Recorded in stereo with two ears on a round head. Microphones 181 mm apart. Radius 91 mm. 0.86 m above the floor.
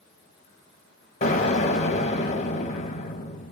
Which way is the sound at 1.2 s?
35° left (ahead or behind).